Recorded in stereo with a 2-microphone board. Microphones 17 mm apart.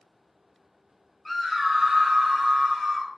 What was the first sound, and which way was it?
A scream, 5° left (ahead or behind).